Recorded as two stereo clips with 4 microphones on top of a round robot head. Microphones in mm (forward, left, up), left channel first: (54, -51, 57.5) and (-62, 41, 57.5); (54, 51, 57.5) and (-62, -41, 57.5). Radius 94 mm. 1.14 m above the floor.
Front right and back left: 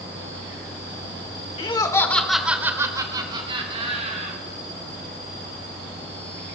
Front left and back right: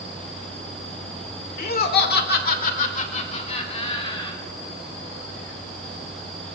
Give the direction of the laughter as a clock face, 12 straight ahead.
11 o'clock.